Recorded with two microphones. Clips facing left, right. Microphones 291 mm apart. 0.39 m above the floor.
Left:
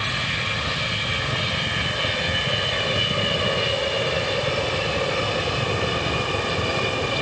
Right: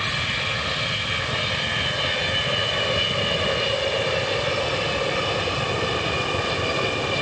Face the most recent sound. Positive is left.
No sound to turn to.